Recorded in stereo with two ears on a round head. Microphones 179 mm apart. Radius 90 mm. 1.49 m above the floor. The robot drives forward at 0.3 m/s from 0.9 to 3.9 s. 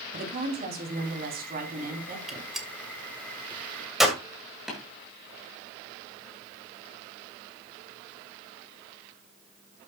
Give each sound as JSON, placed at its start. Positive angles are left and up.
{"t": 0.1, "sound": "a woman speaking", "side_deg": -50, "distance_m": 3.5}
{"t": 2.3, "sound": "a gunshot", "side_deg": 0, "distance_m": 2.0}
{"t": 4.7, "sound": "tapping", "side_deg": 0, "distance_m": 7.5}